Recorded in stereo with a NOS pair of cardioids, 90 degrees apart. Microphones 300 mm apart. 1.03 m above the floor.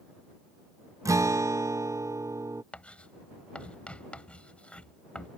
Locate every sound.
1.1 s a guitar: 10° right
2.7 s writing: 5° left